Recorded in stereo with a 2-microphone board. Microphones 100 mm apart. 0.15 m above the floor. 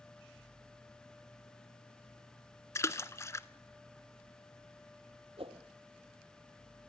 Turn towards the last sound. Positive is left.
turn(degrees=-70)  # may be behind; listen again after turning